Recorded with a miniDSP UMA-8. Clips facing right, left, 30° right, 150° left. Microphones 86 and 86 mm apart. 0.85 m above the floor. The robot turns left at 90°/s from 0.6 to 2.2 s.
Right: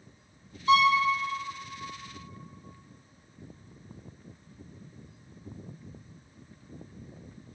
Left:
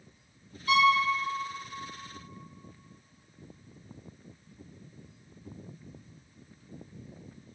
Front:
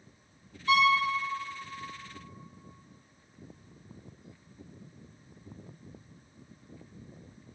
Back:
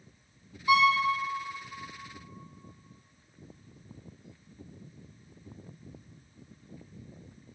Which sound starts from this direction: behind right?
A violin, at 0.7 s.